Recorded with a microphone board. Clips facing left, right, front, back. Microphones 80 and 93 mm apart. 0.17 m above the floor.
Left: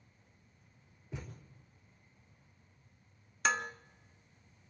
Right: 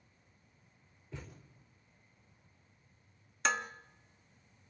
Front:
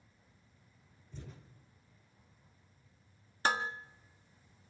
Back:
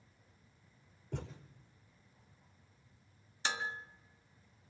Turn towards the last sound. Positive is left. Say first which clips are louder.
# left 1 dB, front 6 dB
turn(degrees=0)